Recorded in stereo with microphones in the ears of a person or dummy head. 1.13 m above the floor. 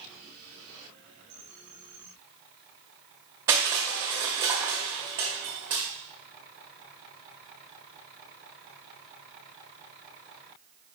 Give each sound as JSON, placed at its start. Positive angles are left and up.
{"t": 3.5, "sound": "crushing", "side_deg": -15, "distance_m": 0.7}